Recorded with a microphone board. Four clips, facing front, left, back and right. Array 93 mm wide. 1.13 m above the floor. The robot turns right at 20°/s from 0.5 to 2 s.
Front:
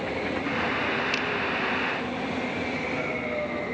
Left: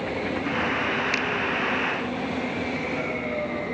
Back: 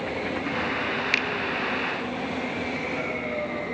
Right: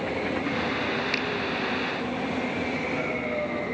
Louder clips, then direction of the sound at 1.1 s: Left 2 dB, back 2 dB; 170° left.